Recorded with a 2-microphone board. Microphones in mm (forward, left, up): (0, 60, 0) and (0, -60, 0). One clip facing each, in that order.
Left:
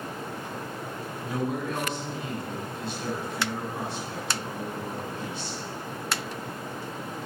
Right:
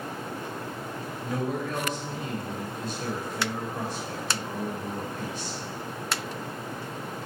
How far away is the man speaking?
About 4 m.